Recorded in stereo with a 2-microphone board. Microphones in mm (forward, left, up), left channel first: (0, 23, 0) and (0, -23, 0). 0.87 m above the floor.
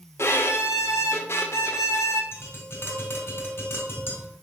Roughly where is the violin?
Left.